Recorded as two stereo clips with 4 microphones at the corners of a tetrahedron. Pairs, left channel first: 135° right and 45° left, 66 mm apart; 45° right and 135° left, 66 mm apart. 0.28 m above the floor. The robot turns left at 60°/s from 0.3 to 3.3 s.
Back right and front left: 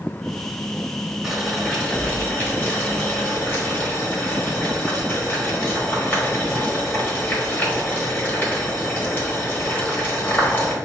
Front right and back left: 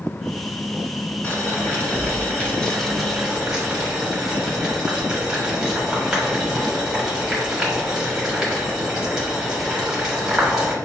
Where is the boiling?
30° right, 1.3 m; by 10.8 s 155° right, 1.3 m.